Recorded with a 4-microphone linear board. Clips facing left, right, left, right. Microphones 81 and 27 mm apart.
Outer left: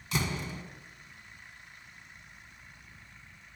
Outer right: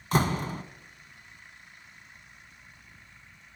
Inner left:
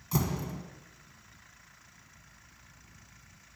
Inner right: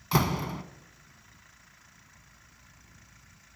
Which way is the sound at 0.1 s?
45° right (ahead or behind).